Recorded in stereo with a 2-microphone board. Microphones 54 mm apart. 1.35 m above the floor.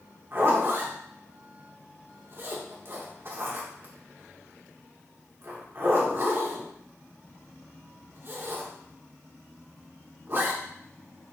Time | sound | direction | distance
0.3 | a zipper | 45° right (ahead or behind) | 2 m